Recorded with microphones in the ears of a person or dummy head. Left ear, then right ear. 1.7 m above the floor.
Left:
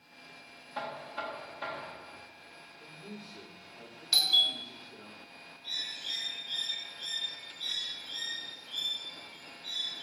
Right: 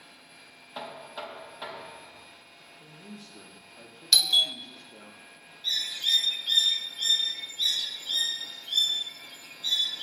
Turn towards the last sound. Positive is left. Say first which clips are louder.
# right 9 dB
turn(degrees=-55)  # may be behind; listen again after turning